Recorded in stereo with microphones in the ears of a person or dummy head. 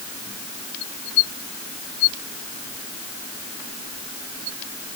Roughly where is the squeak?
I don't hear a squeak.